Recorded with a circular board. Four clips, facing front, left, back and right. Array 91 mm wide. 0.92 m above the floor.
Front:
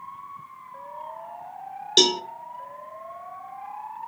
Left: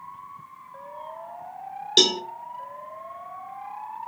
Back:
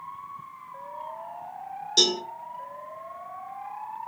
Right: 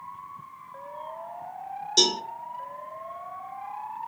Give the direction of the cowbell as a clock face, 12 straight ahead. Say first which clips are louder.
Left 3 dB, front 5 dB; 10 o'clock.